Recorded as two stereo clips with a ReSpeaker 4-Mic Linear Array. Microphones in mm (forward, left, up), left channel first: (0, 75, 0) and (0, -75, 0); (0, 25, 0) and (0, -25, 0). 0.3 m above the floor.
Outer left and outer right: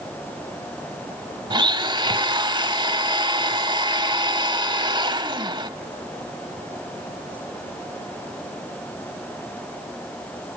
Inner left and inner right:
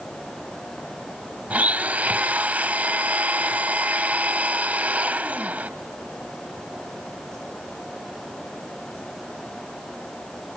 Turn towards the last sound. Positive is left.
turn(degrees=-30)  # may be behind; listen again after turning